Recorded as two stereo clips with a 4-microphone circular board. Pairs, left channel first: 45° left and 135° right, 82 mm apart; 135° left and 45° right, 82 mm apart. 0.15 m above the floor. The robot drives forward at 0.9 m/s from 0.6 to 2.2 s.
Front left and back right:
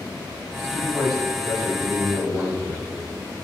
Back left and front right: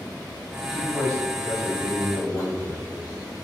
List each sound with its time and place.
0.6 s a man speaking: 105° left, 1.0 m; by 3.4 s 170° left, 1.8 m